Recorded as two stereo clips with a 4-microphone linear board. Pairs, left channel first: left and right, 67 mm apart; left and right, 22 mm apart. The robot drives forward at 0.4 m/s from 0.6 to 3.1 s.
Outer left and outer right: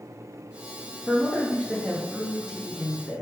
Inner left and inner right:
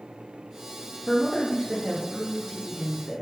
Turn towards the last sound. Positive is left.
turn(degrees=-10)  # may be behind; listen again after turning